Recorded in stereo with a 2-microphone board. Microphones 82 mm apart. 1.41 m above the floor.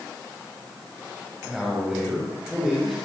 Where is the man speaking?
5° right (ahead or behind), 9 m.